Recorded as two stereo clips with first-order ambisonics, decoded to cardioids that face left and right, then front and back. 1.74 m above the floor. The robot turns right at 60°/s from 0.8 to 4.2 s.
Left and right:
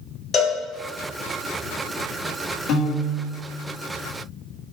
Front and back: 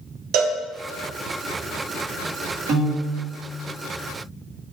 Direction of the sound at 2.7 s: 130° left.